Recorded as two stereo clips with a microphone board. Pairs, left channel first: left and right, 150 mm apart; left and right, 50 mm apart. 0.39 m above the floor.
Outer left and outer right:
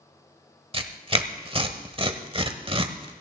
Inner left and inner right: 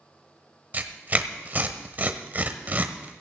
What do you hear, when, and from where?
0.7 s tearing paper: 35° right (ahead or behind), 1.0 m